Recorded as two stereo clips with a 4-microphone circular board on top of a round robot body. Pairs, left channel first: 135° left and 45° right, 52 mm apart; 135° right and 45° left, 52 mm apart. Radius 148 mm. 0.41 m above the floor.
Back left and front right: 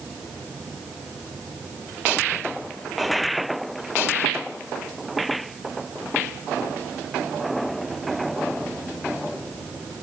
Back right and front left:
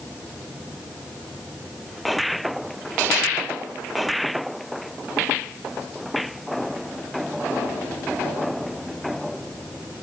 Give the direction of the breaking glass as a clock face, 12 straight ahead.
No breaking glass in this recording.